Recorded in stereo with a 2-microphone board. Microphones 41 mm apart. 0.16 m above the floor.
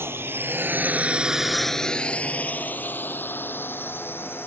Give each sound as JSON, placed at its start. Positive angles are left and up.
{"t": 0.0, "sound": "a drone", "side_deg": -70}